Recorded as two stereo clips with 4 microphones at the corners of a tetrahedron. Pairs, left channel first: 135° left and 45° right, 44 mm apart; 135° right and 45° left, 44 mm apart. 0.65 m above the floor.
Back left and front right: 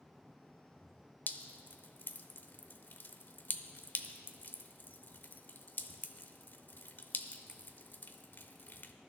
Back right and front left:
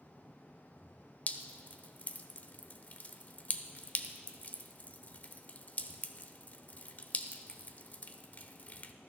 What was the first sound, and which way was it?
Dripping, 175° left.